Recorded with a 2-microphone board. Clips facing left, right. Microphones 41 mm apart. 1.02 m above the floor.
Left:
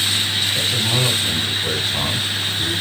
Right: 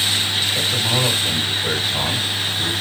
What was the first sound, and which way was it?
A man speaking, 15° right (ahead or behind).